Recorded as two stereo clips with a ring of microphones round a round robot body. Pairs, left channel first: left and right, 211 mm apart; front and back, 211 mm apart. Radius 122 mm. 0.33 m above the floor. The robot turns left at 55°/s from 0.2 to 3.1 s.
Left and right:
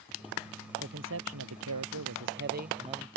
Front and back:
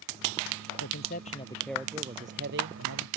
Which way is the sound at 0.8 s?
40° right.